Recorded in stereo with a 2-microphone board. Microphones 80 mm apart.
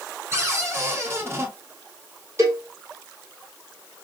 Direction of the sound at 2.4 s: 35° right (ahead or behind).